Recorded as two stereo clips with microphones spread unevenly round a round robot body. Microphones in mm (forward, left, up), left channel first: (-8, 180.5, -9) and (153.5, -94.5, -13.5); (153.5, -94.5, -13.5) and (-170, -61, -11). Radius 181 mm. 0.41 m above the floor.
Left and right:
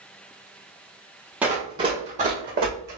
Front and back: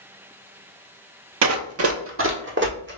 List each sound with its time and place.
1.4 s running footsteps: 145° right, 0.7 m; by 3.0 s 125° right, 1.6 m